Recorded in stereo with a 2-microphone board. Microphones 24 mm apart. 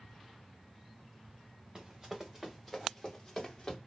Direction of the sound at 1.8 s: 30° right (ahead or behind).